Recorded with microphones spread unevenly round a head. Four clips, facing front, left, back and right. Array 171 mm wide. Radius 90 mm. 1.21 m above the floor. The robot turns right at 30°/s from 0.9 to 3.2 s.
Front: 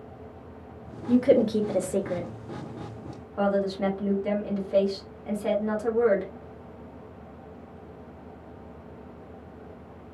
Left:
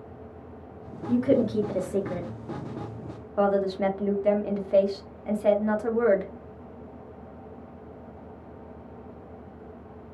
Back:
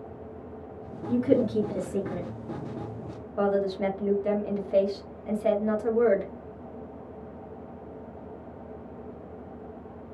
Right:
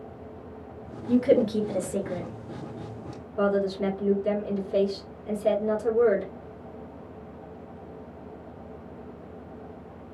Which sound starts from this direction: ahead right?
A woman speaking, at 1.1 s.